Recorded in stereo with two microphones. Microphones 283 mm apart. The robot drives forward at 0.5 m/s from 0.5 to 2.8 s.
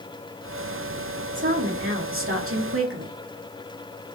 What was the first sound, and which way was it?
A woman speaking, 40° right (ahead or behind).